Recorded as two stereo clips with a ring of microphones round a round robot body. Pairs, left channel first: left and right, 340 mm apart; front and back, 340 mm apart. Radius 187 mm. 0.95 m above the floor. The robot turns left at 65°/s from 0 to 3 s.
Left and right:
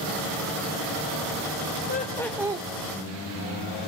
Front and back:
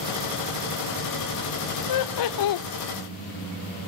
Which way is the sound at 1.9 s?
30° left.